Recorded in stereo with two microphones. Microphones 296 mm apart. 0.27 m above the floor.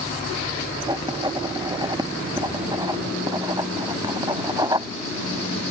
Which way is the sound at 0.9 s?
15° right (ahead or behind).